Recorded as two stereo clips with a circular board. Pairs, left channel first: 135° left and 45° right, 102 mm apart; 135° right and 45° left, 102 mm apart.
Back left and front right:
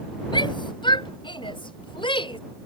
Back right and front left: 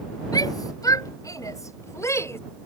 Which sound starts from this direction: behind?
A shout, at 0.3 s.